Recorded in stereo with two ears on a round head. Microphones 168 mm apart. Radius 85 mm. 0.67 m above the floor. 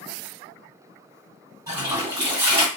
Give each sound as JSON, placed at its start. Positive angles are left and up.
{"t": 1.7, "sound": "a toilet flushing", "side_deg": -20, "distance_m": 1.8}